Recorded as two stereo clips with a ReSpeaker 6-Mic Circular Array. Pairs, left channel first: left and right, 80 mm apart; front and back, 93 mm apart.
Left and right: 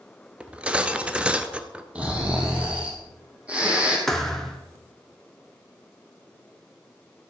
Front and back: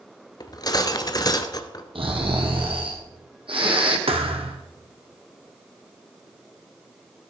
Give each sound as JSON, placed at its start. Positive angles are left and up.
{"t": 0.4, "sound": "cutlery clinking", "azimuth_deg": -20, "distance_m": 1.1}
{"t": 1.9, "sound": "snoring", "azimuth_deg": -165, "distance_m": 3.5}
{"t": 4.1, "sound": "a thud", "azimuth_deg": 175, "distance_m": 1.8}